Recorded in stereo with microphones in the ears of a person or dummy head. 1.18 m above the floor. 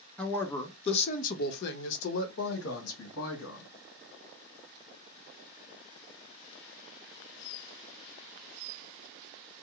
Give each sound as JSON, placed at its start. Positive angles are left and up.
{"t": 0.2, "sound": "a woman speaking", "side_deg": 10, "distance_m": 0.8}